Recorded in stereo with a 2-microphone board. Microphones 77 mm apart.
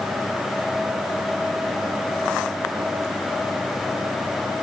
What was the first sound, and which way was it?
Only background noise.